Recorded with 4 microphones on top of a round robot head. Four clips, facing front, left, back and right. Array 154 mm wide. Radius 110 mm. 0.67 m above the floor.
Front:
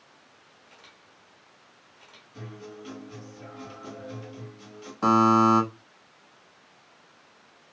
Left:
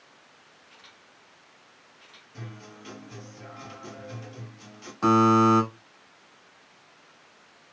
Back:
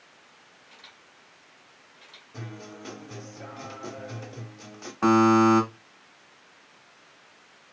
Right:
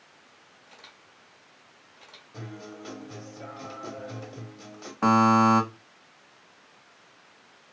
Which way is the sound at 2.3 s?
140° right.